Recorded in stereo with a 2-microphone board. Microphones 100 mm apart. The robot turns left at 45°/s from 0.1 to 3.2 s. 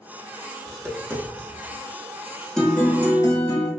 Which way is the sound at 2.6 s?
5° left (ahead or behind).